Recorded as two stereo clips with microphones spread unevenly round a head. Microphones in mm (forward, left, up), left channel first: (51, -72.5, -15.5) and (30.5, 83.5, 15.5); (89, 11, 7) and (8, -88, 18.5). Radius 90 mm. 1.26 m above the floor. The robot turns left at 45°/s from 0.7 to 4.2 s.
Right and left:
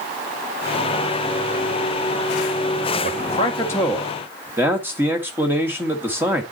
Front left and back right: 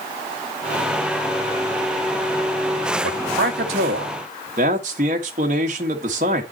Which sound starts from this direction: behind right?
A man speaking, at 3.0 s.